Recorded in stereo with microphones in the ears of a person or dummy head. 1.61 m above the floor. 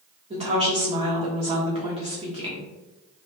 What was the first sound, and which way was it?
A woman speaking, 25° right (ahead or behind).